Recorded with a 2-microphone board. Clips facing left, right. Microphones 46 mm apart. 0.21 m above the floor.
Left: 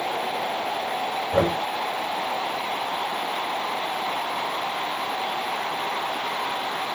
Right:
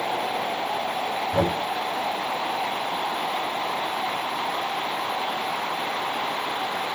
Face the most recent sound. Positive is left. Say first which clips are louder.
# left 2 dB
turn(degrees=40)  # may be behind; listen again after turning